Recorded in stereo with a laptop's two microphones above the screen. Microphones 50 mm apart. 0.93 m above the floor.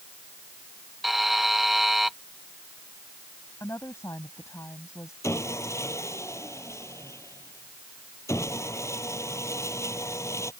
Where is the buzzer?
5° right (ahead or behind).